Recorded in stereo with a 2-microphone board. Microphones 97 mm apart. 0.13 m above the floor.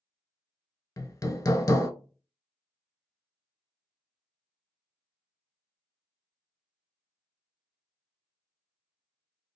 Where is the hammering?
35° left (ahead or behind), 0.5 m.